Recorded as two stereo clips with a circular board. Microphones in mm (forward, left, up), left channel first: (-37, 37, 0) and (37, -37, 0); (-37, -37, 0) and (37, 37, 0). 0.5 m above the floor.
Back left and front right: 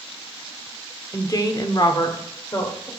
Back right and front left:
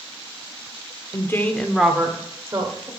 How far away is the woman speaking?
About 1.4 m.